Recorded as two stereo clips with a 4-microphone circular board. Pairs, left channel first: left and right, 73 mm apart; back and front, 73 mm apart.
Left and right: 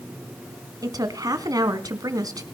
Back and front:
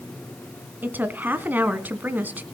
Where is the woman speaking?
60° right, 2.5 m.